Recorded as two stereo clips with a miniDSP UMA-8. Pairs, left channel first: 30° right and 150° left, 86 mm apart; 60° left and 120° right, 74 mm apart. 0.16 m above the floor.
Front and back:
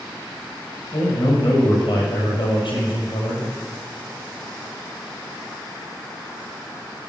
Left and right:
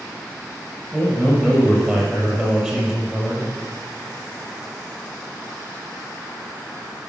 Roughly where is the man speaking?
Ahead right.